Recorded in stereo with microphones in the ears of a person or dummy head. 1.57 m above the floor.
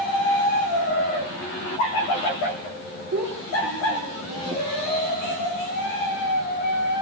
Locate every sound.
3.1 s a child speaking: 80° right, 3 m